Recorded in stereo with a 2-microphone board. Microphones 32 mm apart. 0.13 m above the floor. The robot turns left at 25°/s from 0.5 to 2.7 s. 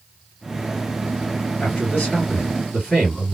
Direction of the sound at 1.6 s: 55° left (ahead or behind).